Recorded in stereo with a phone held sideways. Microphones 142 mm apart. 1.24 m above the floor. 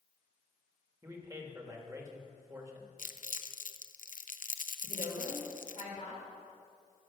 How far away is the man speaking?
About 1.8 m.